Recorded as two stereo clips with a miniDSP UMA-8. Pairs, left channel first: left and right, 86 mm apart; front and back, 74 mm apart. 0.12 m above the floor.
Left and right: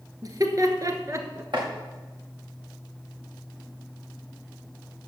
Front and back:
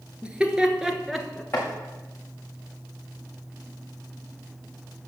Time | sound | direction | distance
0.2 | laughter | 110° right | 1.6 m
1.5 | chopping | 60° right | 5 m